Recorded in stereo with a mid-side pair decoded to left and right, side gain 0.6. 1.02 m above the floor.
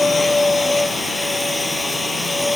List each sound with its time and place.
0.0 s a machine running: 10° left